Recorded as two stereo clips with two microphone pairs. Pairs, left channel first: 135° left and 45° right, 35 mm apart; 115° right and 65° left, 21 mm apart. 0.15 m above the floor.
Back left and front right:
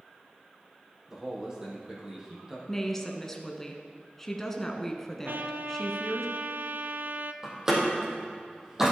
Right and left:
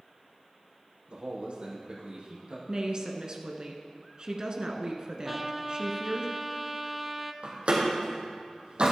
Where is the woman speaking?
65° left, 1.4 m.